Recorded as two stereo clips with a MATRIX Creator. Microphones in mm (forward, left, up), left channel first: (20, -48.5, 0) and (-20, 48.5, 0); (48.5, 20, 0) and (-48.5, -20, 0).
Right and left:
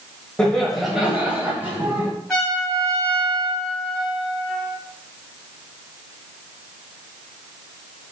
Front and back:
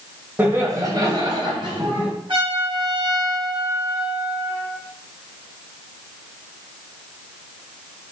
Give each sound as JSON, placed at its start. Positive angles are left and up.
{"t": 0.4, "sound": "laughter", "azimuth_deg": -135, "distance_m": 1.0}
{"t": 2.3, "sound": "a trumpet", "azimuth_deg": -155, "distance_m": 1.9}